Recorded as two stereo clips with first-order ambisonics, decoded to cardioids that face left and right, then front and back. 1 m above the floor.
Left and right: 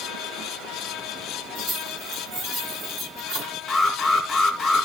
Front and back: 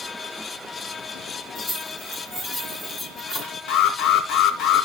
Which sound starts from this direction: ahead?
An alarm, at 3.7 s.